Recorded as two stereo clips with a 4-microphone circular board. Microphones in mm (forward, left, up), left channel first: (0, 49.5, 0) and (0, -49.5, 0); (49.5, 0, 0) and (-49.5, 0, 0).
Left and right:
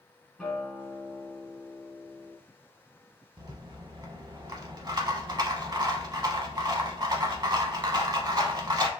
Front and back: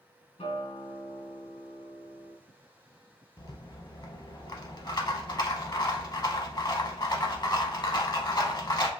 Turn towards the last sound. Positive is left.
turn(degrees=-45)